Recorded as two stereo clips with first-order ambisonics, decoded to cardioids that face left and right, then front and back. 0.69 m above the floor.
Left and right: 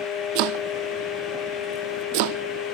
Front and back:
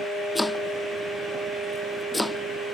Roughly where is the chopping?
Right.